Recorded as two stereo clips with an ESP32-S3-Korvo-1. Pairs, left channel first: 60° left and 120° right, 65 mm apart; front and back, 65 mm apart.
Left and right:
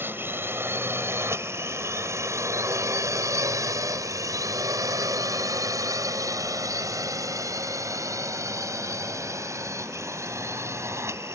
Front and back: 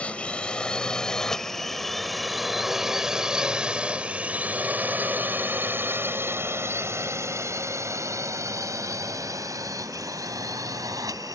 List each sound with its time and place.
0.0 s a drone: 70° right; by 11.3 s 160° right